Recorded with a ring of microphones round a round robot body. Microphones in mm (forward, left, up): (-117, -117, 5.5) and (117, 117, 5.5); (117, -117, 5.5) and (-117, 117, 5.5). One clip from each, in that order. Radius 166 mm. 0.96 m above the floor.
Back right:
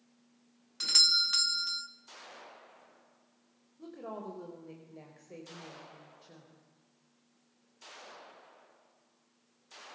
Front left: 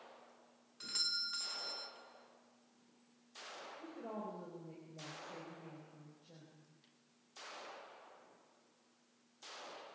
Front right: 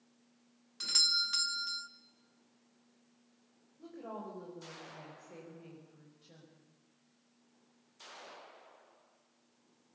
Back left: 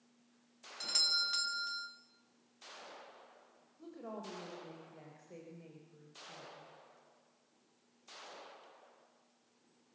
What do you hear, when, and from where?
0.8 s a doorbell: 130° right, 1.1 m
3.8 s a woman speaking: 140° right, 5 m